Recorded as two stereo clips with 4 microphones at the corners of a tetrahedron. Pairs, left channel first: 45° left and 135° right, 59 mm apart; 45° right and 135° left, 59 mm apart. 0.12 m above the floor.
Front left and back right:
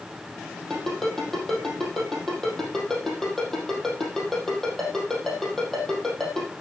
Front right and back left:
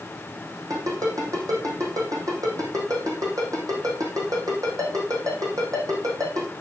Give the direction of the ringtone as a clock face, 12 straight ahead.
8 o'clock.